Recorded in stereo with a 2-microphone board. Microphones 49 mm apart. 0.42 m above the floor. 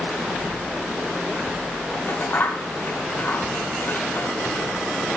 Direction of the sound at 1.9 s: 40° left (ahead or behind).